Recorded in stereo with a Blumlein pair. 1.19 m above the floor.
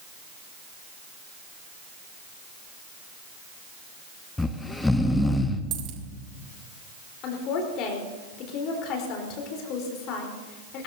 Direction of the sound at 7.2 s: 35° left.